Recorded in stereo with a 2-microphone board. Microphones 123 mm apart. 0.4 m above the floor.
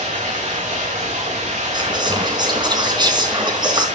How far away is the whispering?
About 3.5 m.